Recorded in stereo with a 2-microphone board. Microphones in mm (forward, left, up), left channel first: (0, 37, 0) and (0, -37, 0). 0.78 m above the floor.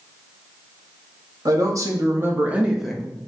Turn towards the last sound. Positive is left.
turn(degrees=15)  # may be behind; listen again after turning